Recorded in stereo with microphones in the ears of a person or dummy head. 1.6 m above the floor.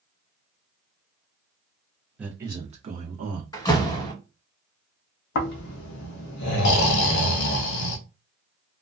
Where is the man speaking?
5° right (ahead or behind), 0.6 m; by 3.4 s 50° right (ahead or behind), 0.9 m.